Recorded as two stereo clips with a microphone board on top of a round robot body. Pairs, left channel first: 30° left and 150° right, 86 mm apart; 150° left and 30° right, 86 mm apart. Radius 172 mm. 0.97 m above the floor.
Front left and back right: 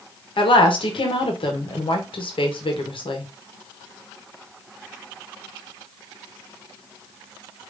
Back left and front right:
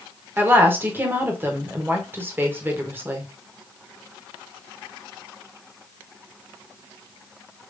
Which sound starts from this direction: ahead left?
A woman speaking, at 0.4 s.